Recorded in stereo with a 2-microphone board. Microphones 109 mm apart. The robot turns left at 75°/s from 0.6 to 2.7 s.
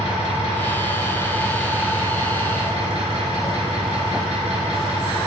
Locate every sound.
0.0 s an engine running: 75° left, 3 m; by 5.3 s 85° right, 3 m